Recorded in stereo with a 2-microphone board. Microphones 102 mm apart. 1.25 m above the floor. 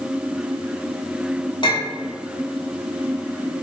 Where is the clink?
45° left (ahead or behind), 1.1 m.